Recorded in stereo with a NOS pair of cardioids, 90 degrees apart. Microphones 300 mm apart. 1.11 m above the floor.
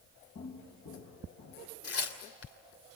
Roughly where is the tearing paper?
Ahead left.